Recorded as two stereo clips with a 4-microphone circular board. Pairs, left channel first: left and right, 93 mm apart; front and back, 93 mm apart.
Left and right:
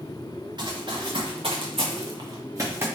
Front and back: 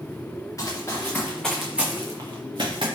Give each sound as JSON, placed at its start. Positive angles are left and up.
{"t": 0.6, "sound": "running footsteps", "azimuth_deg": -55, "distance_m": 1.7}